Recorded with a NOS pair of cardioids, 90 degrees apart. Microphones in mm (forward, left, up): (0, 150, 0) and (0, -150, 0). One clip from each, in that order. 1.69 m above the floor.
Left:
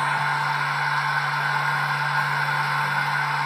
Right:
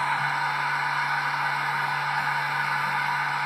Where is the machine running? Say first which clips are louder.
Left 2 dB; 50° left, 1.2 m.